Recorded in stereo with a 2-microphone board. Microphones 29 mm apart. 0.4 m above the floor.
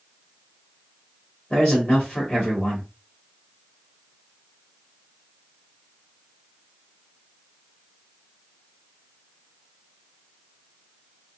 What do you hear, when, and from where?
1.5 s a man speaking: 35° left (ahead or behind), 1.9 m